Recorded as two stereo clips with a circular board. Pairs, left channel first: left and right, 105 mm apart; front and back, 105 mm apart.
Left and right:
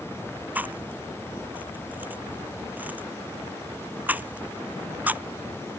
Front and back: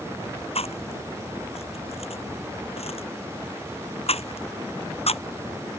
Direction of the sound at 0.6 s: 15° right.